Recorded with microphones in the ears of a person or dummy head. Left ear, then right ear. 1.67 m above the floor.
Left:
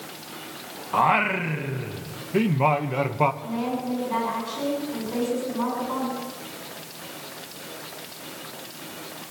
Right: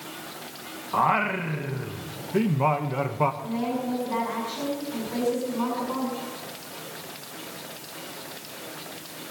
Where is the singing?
10° left (ahead or behind), 0.8 m.